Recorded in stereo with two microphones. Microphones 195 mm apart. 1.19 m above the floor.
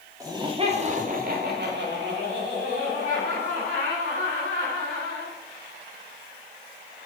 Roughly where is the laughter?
Centre.